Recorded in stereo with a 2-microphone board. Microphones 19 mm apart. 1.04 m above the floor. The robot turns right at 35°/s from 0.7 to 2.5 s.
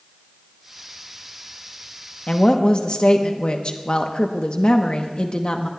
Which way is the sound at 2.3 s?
55° left (ahead or behind).